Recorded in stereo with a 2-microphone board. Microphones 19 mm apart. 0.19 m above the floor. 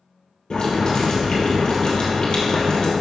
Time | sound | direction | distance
0.5 | boiling | 45° left (ahead or behind) | 3 m